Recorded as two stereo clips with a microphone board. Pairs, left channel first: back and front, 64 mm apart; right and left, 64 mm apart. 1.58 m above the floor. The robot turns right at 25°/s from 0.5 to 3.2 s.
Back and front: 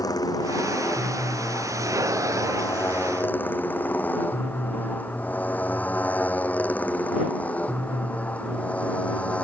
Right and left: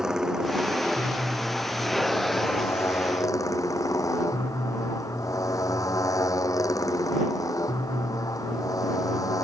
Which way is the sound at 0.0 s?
170° left.